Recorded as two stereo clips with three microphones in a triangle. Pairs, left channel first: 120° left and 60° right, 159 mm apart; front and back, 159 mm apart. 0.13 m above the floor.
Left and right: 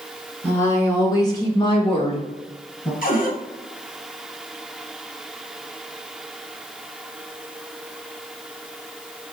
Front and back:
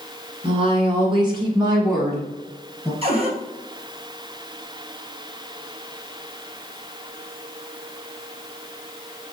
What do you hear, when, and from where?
0.4 s a woman speaking: 170° right, 2.0 m; by 2.9 s 105° left, 2 m
3.0 s a cupboard door: 135° left, 1.3 m